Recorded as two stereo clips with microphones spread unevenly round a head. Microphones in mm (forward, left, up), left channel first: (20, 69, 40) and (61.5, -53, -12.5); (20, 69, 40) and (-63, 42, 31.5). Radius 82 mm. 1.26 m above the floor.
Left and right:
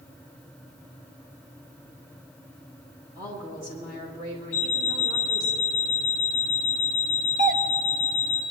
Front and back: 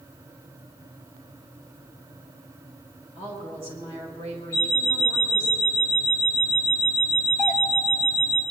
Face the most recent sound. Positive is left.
turn(degrees=-75)